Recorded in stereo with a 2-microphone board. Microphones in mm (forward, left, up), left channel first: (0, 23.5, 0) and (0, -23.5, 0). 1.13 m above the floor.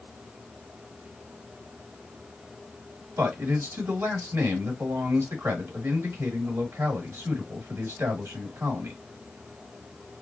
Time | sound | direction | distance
3.2 | a man speaking | 75° right (ahead or behind) | 1.9 m